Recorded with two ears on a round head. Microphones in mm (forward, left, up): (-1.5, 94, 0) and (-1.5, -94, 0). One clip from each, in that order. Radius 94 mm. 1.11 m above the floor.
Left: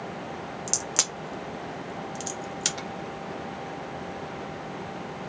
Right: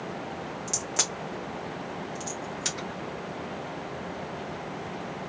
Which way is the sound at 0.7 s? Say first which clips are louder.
Left 2 dB; 25° left (ahead or behind).